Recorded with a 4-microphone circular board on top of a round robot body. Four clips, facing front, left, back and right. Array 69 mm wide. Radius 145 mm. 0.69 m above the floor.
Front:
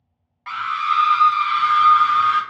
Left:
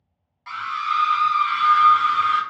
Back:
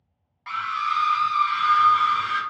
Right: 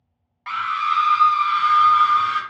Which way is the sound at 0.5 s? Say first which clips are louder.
Right 3 dB, front 4 dB; 70° right.